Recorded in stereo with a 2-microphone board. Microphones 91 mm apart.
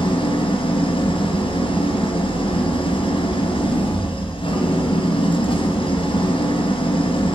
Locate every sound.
0.0 s an engine running: 70° left (ahead or behind), 2.5 m